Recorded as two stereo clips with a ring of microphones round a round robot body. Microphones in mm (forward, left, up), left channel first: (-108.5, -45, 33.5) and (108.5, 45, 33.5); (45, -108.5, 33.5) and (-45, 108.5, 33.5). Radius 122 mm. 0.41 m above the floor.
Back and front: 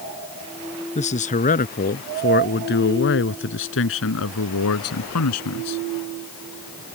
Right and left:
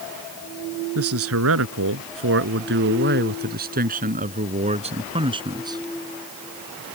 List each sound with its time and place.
0.9 s a man speaking: 140° left; by 5.8 s 175° right